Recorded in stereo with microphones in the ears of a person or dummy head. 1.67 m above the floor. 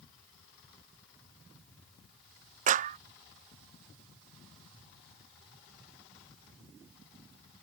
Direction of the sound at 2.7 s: 40° right (ahead or behind).